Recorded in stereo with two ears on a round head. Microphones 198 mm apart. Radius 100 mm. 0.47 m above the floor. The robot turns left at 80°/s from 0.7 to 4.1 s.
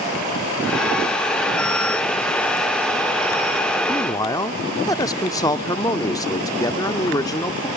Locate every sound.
3.9 s a man speaking: 10° left (ahead or behind), 0.7 m; by 7.7 s 15° left (ahead or behind), 0.7 m